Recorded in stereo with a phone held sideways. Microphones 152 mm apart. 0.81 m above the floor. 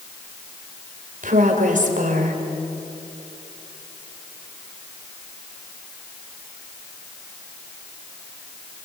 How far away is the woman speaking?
About 4 m.